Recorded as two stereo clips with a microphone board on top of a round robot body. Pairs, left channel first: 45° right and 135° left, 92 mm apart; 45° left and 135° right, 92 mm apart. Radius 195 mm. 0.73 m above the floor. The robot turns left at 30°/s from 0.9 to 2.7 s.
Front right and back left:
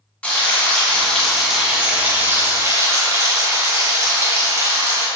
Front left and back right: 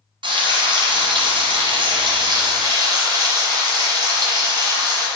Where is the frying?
120° right, 1.6 m; by 5.1 s 170° right, 1.6 m.